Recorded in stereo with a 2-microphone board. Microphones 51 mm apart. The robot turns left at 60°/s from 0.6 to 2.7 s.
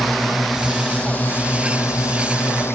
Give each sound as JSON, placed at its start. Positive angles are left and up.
{"t": 0.0, "sound": "a drone", "azimuth_deg": 180}